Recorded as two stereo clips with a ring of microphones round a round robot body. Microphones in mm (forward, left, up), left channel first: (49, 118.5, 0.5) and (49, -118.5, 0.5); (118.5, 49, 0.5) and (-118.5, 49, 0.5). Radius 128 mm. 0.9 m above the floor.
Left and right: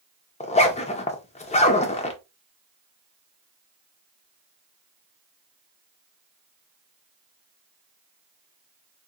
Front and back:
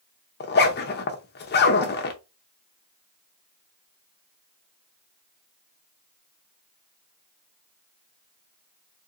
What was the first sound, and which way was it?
A zipper, 35° left.